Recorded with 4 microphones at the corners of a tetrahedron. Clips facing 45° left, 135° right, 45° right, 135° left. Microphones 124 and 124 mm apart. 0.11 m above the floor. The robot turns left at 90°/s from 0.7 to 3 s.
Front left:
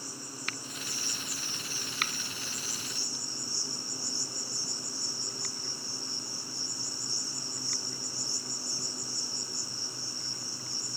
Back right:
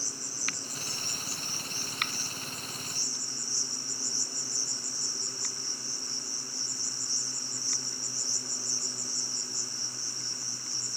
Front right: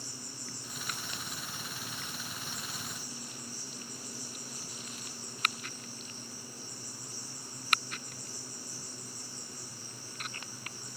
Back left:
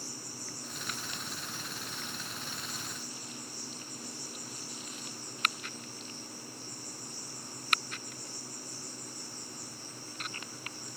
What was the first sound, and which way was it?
An insect, 140° right.